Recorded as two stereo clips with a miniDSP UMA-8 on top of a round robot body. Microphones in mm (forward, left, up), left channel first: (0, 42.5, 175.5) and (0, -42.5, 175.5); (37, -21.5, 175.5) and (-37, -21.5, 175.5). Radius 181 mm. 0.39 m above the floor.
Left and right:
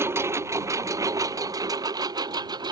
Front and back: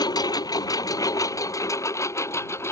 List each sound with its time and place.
0.0 s a lawn mower: 30° right; by 2.7 s 55° right